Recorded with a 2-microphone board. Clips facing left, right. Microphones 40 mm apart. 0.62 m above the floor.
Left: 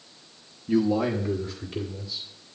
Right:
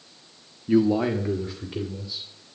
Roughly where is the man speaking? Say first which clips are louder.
Right 3 dB; centre.